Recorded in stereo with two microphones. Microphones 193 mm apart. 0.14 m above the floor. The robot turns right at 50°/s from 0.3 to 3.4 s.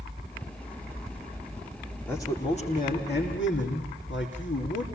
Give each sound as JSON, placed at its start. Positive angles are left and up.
{"t": 2.1, "sound": "a man speaking", "azimuth_deg": 10, "distance_m": 6.5}